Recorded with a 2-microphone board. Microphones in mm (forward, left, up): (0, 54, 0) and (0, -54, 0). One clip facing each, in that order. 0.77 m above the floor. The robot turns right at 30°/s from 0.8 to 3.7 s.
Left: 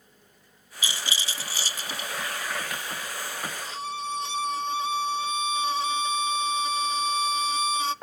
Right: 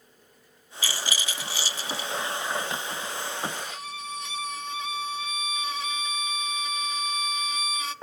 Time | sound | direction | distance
0.8 | a rattle | 20° left | 0.8 m
3.6 | a violin | 30° left (ahead or behind) | 0.5 m